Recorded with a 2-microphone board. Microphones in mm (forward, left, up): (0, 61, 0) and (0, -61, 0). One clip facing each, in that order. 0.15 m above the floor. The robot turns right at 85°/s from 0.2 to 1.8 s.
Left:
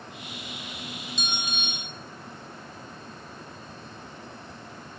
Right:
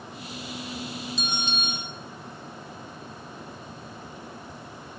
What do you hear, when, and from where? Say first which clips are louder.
1.2 s a bell: right 2 dB; straight behind, 1.4 m; by 1.9 s 125° right, 1.4 m